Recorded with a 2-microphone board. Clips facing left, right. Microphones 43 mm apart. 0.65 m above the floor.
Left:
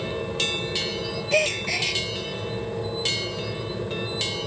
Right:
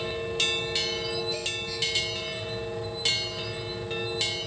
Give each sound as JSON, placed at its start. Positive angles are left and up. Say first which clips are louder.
{"t": 0.0, "sound": "an aircraft", "louder": "left 2 dB", "side_deg": 50}
{"t": 1.3, "sound": "a gasp", "louder": "left 10 dB", "side_deg": 75}